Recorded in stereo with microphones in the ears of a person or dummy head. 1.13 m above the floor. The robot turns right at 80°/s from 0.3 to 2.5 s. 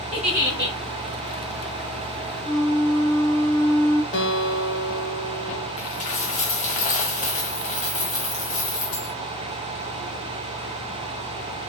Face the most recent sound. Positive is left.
turn(degrees=40)  # may be behind; listen again after turning